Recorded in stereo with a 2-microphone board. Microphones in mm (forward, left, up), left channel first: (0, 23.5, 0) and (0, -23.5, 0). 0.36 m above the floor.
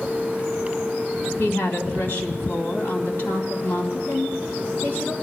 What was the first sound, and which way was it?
A woman speaking, 55° left (ahead or behind).